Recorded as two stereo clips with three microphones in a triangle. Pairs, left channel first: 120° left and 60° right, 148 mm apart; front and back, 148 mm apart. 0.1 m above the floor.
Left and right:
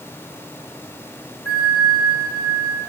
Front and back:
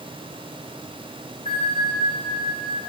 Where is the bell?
45° left, 5 m.